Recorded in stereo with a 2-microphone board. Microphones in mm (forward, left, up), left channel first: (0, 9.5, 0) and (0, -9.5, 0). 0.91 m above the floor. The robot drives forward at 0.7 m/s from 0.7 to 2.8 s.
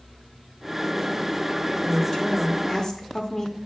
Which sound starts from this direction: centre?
A woman speaking, at 1.8 s.